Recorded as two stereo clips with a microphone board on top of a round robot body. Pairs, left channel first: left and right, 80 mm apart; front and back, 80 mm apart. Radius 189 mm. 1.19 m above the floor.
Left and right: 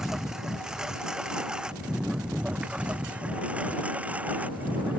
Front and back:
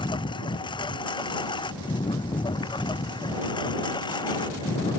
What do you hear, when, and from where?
0.0 s a lawn mower: 5° right; by 5.0 s 20° right